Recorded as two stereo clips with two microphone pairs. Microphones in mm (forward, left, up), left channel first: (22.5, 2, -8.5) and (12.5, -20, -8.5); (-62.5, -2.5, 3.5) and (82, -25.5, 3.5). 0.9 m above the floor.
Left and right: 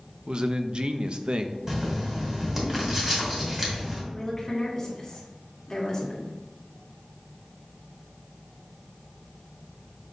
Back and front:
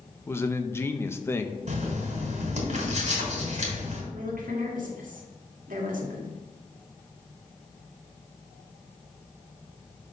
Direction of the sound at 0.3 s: 120° right.